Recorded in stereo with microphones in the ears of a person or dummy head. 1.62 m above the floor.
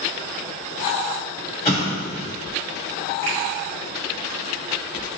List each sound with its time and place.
1.6 s an explosion: 30° left (ahead or behind), 1.7 m
3.2 s a finger snap: 5° left (ahead or behind), 1.8 m